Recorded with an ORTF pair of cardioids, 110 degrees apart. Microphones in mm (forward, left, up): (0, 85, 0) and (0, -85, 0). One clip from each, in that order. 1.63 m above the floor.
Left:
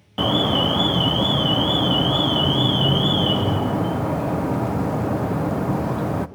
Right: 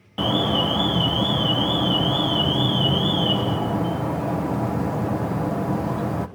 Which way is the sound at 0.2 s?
15° left.